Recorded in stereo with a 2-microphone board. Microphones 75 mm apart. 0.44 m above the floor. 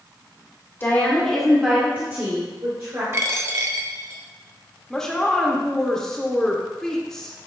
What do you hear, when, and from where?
0.8 s a woman speaking: 30° left (ahead or behind), 1.5 m; by 3.0 s 55° right (ahead or behind), 2 m
3.1 s a dropped coin: 35° right (ahead or behind), 0.6 m
4.9 s a woman speaking: 5° left (ahead or behind), 0.8 m